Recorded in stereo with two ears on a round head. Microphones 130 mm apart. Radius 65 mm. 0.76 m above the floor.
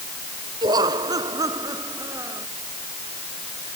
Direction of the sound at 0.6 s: 30° right (ahead or behind).